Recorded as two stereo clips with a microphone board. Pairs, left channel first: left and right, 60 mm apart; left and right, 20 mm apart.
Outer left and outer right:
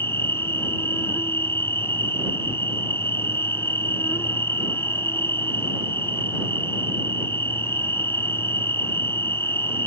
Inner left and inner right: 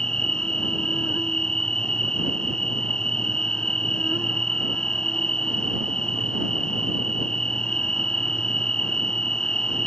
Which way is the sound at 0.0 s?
40° left (ahead or behind).